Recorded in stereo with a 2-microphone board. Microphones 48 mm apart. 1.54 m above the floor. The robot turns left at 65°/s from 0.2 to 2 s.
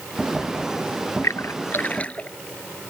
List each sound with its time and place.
1.2 s a splash: 75° left (ahead or behind); by 2.3 s 25° left (ahead or behind)